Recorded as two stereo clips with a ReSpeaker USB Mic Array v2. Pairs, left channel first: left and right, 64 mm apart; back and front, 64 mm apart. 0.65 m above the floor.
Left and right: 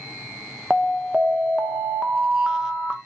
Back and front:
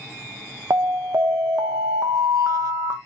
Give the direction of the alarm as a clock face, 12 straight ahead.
12 o'clock.